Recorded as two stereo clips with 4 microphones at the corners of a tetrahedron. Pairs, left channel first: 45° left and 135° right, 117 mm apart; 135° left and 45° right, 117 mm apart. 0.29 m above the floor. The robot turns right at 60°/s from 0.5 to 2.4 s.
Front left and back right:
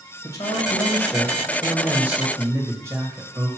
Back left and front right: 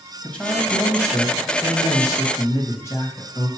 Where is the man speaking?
65° left, 1.4 m; by 3.5 s straight behind, 1.4 m.